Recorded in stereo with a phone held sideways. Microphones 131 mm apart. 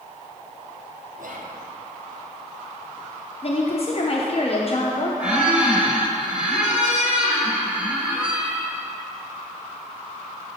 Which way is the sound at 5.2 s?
10° right (ahead or behind).